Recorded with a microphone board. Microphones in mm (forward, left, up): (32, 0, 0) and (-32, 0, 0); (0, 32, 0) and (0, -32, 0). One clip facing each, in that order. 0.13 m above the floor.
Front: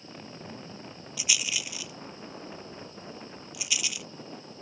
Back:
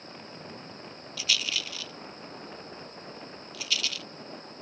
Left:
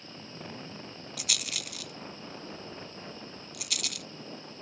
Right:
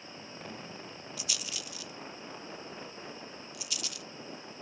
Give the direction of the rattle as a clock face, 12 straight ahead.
10 o'clock.